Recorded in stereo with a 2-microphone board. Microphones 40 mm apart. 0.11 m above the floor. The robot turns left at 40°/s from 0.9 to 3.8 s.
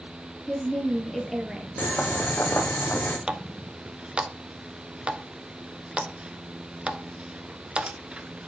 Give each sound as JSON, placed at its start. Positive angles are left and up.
{"t": 0.5, "sound": "a woman speaking", "azimuth_deg": 15, "distance_m": 2.0}
{"t": 1.8, "sound": "boiling", "azimuth_deg": 130, "distance_m": 3.0}
{"t": 3.3, "sound": "a running tap", "side_deg": -25, "distance_m": 0.9}